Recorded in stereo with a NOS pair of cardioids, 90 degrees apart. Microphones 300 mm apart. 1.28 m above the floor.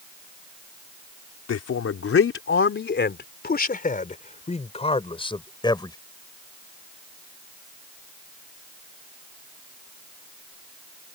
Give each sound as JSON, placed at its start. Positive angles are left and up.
{"t": 1.5, "sound": "a man speaking", "azimuth_deg": 55}